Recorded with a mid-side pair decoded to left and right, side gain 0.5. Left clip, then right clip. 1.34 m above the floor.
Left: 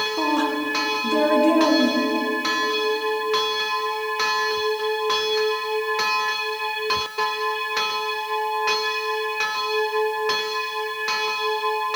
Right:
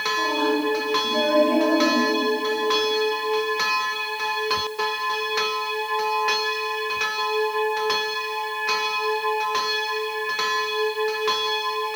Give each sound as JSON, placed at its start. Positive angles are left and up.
{"t": 0.2, "sound": "a woman speaking", "azimuth_deg": 60, "distance_m": 2.5}